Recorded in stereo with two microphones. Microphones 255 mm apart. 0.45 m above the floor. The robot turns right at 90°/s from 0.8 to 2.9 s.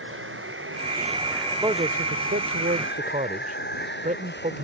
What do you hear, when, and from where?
0.0 s running water: 50° right; by 4.6 s 135° left
1.6 s a man speaking: 160° right; by 4.6 s 45° right